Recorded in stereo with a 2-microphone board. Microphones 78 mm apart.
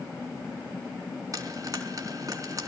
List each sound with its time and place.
1.3 s frying: 50° right (ahead or behind), 4 m